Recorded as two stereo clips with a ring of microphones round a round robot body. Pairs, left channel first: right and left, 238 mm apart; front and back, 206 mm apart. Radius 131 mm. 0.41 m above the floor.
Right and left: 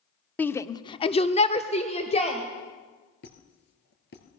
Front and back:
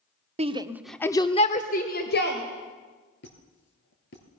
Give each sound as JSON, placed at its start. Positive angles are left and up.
{"t": 0.4, "sound": "a shout", "azimuth_deg": -170, "distance_m": 1.1}
{"t": 3.2, "sound": "a squeak", "azimuth_deg": -45, "distance_m": 2.5}